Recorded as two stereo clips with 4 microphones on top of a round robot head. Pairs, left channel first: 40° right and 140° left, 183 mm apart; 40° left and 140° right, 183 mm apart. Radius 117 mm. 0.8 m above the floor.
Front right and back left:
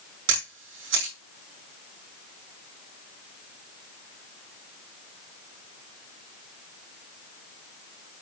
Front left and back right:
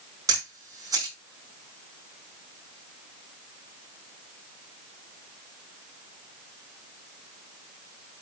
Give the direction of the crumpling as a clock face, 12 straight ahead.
I don't hear crumpling.